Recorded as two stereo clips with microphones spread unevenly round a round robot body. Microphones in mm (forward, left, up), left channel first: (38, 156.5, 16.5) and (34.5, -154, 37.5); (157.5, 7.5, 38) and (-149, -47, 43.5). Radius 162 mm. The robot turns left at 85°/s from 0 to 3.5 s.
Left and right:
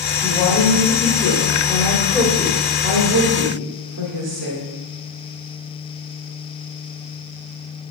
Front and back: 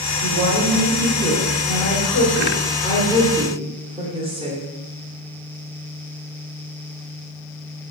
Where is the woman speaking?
175° left, 1.2 m; by 4.6 s 105° right, 1.2 m.